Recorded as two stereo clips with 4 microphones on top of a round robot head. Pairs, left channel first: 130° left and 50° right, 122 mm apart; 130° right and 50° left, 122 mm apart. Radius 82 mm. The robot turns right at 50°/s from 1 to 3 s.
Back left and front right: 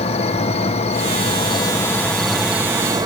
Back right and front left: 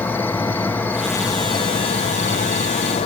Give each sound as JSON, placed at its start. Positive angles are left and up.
{"t": 0.0, "sound": "an insect", "azimuth_deg": 155, "distance_m": 1.2}